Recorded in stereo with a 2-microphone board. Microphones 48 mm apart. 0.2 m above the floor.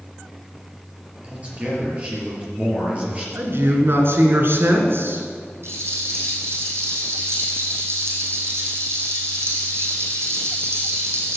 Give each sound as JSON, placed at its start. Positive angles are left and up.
{"t": 1.2, "sound": "a man speaking", "side_deg": -30, "distance_m": 4.5}
{"t": 3.4, "sound": "a man speaking", "side_deg": -50, "distance_m": 2.5}
{"t": 5.6, "sound": "a rattle", "side_deg": -65, "distance_m": 4.0}